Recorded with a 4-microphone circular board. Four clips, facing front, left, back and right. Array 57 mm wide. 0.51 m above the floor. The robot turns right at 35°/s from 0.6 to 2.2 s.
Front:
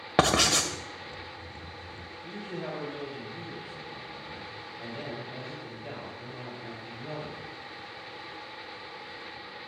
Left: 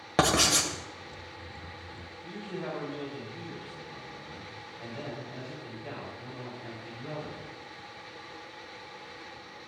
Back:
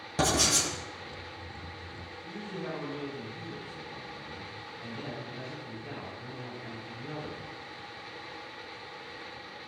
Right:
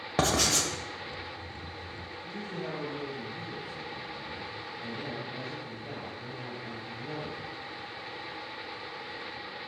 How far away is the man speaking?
About 3 m.